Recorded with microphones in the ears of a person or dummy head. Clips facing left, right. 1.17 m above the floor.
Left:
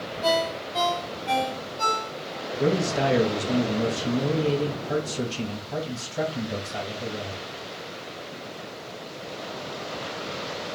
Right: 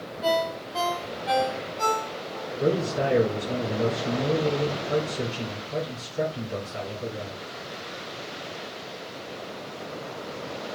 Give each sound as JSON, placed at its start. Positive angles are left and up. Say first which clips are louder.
{"t": 0.2, "sound": "a ringtone", "louder": "even", "side_deg": 10, "distance_m": 2.0}
{"t": 2.6, "sound": "a man speaking", "louder": "left 1 dB", "side_deg": 75, "distance_m": 1.0}